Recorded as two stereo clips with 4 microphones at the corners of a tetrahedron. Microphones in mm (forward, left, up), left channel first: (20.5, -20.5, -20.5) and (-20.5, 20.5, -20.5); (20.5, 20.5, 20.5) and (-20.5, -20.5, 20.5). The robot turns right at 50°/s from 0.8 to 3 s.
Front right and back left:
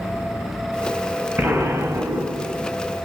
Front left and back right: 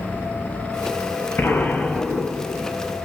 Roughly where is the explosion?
Left.